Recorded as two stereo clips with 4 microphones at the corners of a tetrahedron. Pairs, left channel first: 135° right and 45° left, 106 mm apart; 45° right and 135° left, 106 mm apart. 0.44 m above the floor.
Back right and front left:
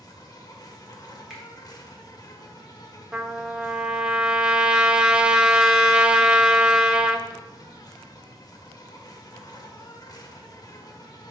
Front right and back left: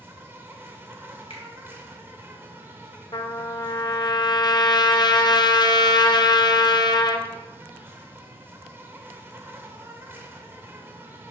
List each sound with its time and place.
0.0 s an insect: 165° right, 0.8 m
1.3 s a finger snap: 40° right, 2.5 m
3.1 s a trumpet: 35° right, 0.5 m